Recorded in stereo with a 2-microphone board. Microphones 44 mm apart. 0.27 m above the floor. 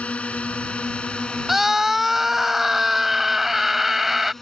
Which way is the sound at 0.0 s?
30° left (ahead or behind).